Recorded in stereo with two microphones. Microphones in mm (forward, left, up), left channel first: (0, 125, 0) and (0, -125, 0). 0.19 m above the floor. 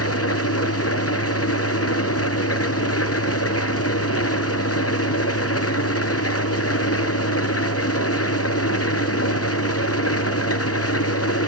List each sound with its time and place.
0.0 s an engine running: 75° left (ahead or behind), 1.3 m